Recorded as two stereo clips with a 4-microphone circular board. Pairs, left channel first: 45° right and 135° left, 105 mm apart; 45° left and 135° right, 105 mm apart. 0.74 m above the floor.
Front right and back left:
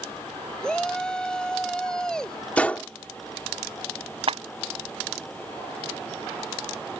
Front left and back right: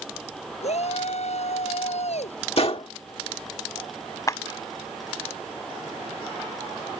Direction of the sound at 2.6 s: 30° left.